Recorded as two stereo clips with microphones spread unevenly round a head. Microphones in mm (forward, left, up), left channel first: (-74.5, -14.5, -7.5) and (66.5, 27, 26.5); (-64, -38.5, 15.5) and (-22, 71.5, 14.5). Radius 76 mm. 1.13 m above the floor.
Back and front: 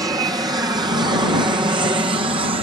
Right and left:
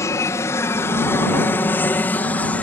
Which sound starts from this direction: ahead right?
An aircraft, at 0.0 s.